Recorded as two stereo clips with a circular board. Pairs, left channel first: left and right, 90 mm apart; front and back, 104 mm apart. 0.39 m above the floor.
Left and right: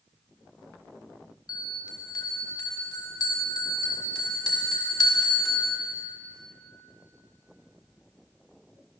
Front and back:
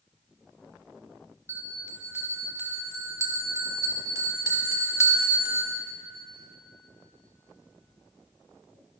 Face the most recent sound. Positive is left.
turn(degrees=125)